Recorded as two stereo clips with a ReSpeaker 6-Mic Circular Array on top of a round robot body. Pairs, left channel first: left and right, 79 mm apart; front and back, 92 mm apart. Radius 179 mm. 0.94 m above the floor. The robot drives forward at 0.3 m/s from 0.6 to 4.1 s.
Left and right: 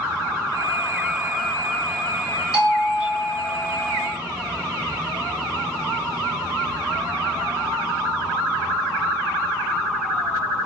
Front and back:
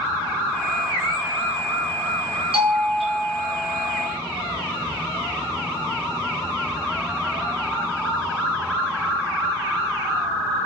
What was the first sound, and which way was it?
A doorbell, 175° right.